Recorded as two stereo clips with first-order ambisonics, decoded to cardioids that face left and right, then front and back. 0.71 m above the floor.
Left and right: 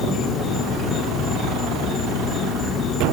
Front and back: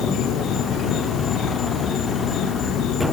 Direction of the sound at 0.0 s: 40° left.